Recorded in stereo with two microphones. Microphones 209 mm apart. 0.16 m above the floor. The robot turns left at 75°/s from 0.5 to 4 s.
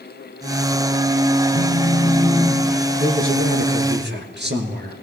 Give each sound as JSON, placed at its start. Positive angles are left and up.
{"t": 1.5, "sound": "a phone buzzing", "azimuth_deg": 85, "distance_m": 1.4}
{"t": 3.0, "sound": "a man speaking", "azimuth_deg": -35, "distance_m": 2.0}